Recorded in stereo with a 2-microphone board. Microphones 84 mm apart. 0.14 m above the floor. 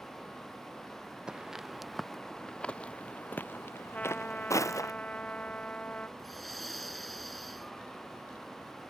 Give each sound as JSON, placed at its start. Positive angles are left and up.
{"t": 1.3, "sound": "footsteps", "side_deg": -10}
{"t": 3.9, "sound": "a trumpet", "side_deg": 15}
{"t": 6.2, "sound": "breathing", "side_deg": 0}